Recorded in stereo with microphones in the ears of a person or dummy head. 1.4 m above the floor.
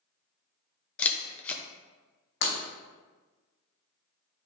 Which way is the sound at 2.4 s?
65° left (ahead or behind).